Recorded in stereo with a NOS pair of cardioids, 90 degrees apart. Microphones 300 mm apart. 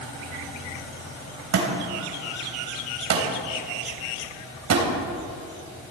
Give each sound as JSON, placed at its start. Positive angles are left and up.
{"t": 1.5, "sound": "a thud", "azimuth_deg": -60, "distance_m": 3.0}